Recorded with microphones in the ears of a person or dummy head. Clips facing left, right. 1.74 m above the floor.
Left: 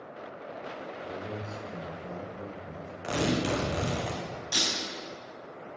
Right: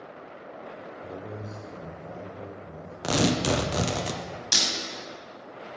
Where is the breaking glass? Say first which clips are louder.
Even; 65° right (ahead or behind), 3.5 m.